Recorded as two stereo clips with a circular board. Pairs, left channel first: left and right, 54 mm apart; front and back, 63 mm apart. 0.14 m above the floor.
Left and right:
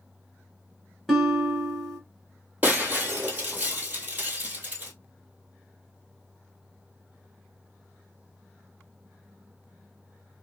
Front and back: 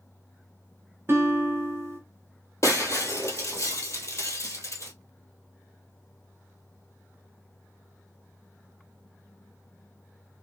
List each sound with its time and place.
1.1 s a guitar: straight behind, 1.5 m
2.6 s breaking glass: 35° right, 1.2 m